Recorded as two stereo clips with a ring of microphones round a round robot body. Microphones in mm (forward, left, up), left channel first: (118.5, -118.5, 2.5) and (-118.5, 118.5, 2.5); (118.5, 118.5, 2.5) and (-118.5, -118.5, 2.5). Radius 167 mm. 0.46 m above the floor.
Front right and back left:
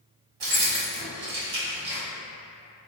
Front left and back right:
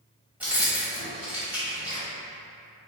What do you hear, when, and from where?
0.4 s keys jangling: 140° left, 1.2 m